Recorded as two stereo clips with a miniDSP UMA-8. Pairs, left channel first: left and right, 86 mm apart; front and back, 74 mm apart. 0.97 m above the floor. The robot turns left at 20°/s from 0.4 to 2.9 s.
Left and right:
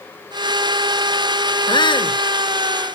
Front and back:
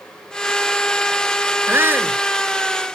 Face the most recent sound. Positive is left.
turn(degrees=95)